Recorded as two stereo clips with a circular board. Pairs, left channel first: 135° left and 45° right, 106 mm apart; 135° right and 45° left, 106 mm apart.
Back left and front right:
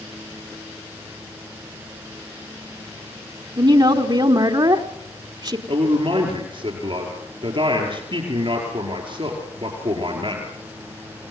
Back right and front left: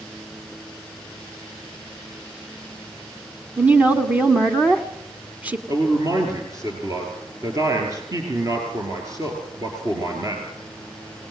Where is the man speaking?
10° right, 5 m.